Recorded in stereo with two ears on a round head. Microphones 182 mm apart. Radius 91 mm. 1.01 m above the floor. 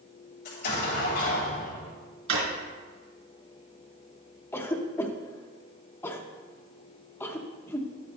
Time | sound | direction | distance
0.5 | an explosion | 45° left (ahead or behind) | 3 m
2.3 | a drawer | 70° right (ahead or behind) | 3 m
4.5 | a cough | 10° left (ahead or behind) | 0.8 m